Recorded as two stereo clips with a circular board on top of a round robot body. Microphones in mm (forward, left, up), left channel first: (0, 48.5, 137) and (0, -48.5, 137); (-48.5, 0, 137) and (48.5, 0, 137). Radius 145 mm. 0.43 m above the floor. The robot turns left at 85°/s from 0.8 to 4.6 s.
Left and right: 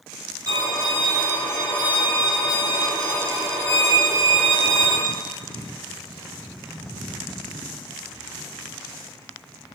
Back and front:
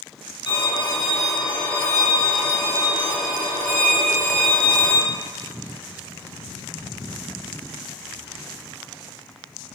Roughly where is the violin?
Behind right.